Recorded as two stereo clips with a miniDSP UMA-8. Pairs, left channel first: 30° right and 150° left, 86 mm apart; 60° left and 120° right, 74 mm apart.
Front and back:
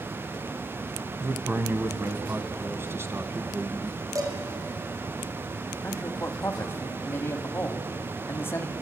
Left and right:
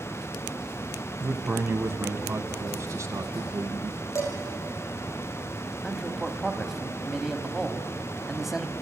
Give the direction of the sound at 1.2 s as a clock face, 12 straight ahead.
6 o'clock.